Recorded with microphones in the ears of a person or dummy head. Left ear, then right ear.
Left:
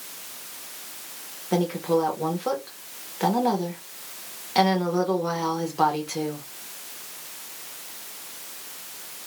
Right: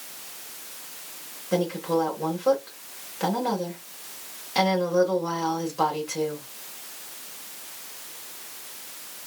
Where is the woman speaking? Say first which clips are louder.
Left 1 dB; 10° left (ahead or behind), 1.2 m.